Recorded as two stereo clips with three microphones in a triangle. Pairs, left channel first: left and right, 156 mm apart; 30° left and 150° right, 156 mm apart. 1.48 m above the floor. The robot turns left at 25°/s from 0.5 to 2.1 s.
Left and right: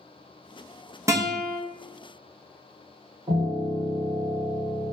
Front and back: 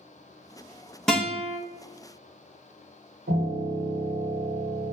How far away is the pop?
I don't hear a pop.